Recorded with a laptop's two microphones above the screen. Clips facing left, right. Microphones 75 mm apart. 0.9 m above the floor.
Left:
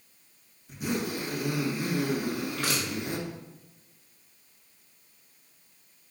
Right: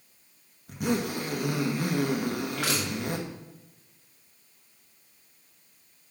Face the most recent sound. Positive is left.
turn(degrees=-85)